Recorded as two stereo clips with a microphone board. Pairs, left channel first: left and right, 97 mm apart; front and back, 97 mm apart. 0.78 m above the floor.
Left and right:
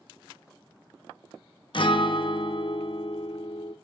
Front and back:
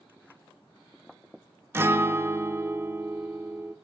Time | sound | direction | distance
1.7 | a guitar | 115° left | 0.6 m